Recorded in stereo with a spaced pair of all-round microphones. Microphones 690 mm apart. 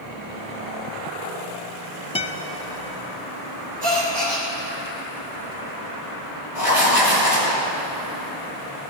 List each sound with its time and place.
2.1 s a guitar: 10° left (ahead or behind), 0.6 m
3.8 s a gasp: 70° right (ahead or behind), 2 m
6.5 s writing: 80° right, 3.5 m